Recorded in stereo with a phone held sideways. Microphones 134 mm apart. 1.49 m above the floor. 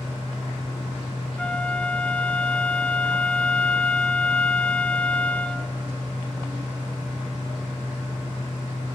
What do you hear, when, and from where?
0.0 s a fan: 10° left (ahead or behind), 0.8 m
1.4 s a flute: 10° left (ahead or behind), 0.9 m